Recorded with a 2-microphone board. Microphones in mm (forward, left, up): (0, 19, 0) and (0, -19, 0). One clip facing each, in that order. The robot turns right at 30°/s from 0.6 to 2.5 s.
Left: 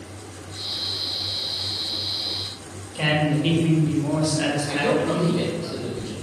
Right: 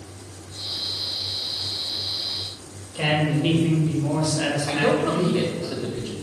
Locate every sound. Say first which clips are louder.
3.0 s a woman speaking: left 1 dB; 5° left (ahead or behind), 0.6 m
4.7 s a man speaking: right 2 dB; 75° right (ahead or behind), 0.7 m